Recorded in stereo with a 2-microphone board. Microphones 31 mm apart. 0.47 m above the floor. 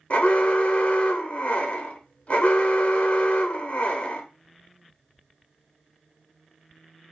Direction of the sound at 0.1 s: 50° left (ahead or behind).